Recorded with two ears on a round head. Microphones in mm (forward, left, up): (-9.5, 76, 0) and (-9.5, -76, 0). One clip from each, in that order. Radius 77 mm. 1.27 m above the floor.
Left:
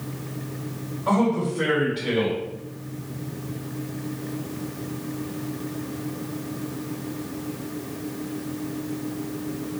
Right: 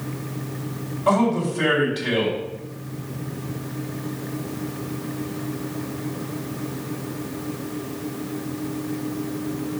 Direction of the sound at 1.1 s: 60° right (ahead or behind).